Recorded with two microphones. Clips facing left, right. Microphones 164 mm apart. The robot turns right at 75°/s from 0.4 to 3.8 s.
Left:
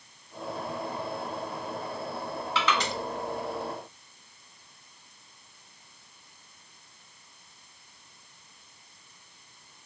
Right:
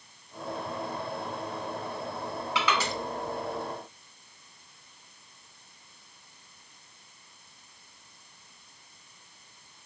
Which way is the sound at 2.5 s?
15° right (ahead or behind).